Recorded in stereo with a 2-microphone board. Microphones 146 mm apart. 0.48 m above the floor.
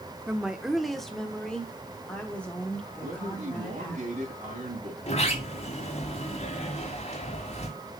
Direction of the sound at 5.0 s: 45° left (ahead or behind).